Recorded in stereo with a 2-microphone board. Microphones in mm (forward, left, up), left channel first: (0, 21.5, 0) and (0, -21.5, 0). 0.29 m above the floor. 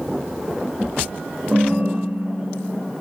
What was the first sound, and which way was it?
A ringtone, 45° right (ahead or behind).